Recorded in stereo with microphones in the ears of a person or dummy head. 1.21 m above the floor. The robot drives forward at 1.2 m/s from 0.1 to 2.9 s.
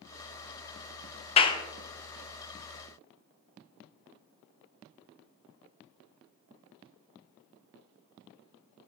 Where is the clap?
35° left (ahead or behind), 0.6 m; by 1.6 s 20° left (ahead or behind), 0.8 m.